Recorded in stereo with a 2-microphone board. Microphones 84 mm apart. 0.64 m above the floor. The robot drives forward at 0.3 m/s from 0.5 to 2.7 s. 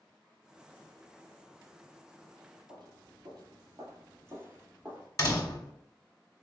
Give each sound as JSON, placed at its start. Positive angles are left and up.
{"t": 2.7, "sound": "footsteps", "side_deg": -60, "distance_m": 1.3}
{"t": 5.2, "sound": "a door slam", "side_deg": 40, "distance_m": 1.2}